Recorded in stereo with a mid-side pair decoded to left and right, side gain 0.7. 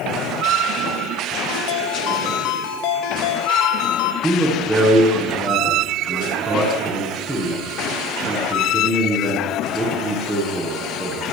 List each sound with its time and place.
1.5 s a ringtone: 70° left, 3 m
4.2 s a man speaking: straight ahead, 9.5 m